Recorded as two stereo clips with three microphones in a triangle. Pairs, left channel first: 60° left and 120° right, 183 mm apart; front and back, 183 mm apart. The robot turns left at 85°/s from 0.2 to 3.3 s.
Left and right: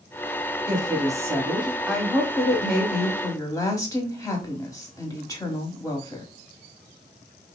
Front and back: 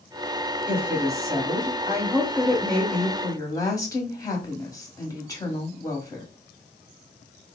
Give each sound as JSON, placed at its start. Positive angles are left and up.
{"t": 0.7, "sound": "a woman speaking", "azimuth_deg": -110, "distance_m": 1.4}